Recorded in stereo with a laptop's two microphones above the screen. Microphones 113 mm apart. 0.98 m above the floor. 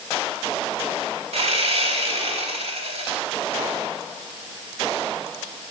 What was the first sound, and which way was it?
Sawing, 65° right (ahead or behind).